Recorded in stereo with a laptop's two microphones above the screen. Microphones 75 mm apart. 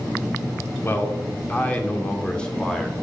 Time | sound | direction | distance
0.8 | a man speaking | 30° left (ahead or behind) | 2.5 m